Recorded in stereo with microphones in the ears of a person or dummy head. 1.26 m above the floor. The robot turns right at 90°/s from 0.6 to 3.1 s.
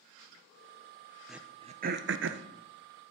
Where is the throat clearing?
Centre (ahead or behind), 0.8 m; by 2.5 s 55° right (ahead or behind), 0.8 m.